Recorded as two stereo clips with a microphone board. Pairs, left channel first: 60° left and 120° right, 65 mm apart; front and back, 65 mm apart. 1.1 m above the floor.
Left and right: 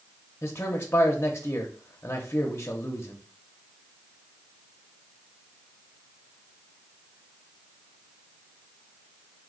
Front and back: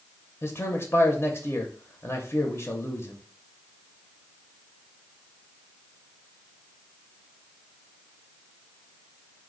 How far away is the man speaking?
About 0.6 m.